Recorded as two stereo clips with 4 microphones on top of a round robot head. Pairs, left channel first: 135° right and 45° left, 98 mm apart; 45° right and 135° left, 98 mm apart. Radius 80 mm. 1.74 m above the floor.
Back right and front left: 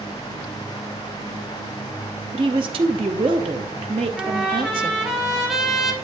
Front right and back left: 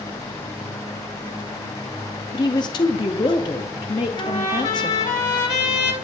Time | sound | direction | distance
2.3 | a woman speaking | 5° left | 0.6 m
4.2 | a trumpet | 40° right | 2 m